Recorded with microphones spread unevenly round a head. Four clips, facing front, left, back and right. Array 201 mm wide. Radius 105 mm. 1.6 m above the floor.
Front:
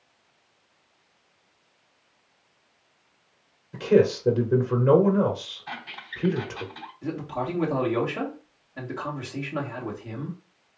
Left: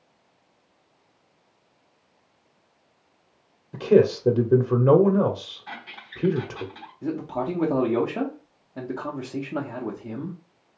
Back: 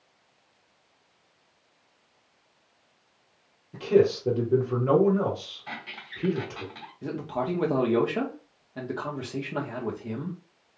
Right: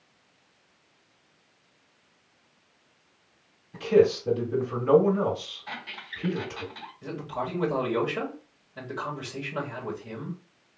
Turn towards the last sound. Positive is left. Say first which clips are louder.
# left 5 dB, even
turn(degrees=120)